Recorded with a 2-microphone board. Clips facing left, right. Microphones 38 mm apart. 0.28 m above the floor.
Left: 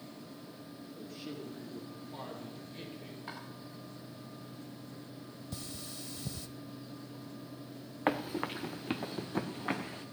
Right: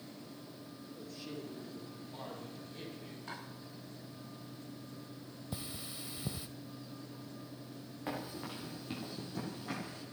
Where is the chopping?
20° left (ahead or behind), 7 m.